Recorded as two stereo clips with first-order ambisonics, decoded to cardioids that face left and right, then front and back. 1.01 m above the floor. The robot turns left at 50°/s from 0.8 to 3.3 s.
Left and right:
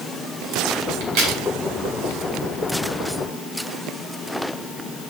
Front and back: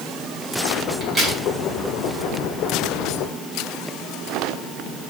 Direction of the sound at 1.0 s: 90° right.